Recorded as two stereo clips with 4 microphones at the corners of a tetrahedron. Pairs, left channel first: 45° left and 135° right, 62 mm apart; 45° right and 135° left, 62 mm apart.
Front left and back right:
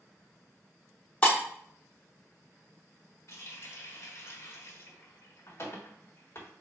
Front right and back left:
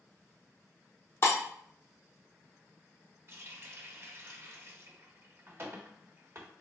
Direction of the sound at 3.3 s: 85° left.